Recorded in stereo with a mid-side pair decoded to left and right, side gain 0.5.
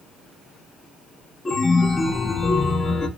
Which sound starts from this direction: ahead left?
A chime, at 1.4 s.